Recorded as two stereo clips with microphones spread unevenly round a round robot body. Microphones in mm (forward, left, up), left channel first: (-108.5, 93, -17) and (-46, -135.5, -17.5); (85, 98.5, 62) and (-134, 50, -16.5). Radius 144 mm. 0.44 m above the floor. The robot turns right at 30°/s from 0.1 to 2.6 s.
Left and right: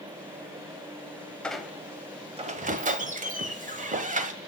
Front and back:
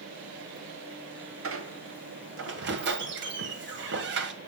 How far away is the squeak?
About 1.3 m.